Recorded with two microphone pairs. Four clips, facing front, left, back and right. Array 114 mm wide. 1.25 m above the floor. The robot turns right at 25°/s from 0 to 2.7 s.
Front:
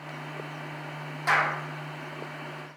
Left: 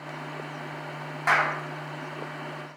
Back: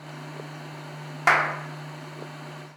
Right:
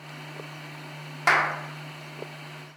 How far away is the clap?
About 0.6 m.